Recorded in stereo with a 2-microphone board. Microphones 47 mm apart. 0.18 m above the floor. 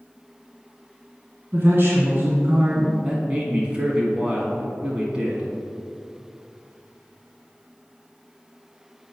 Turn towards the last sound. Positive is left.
turn(degrees=-25)  # may be behind; listen again after turning